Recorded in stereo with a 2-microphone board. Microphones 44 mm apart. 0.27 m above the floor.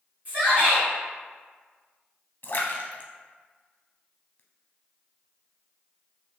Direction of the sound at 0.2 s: 35° right (ahead or behind).